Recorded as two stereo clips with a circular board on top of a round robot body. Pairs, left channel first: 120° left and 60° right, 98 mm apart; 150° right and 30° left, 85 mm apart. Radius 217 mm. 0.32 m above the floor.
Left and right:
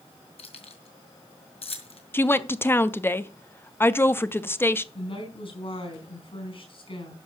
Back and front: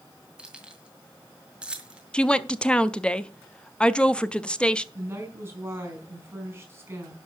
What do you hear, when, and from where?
0.4 s keys jangling: 110° left, 2 m
2.1 s a woman speaking: 150° left, 0.9 m
4.9 s a woman speaking: 95° left, 4.5 m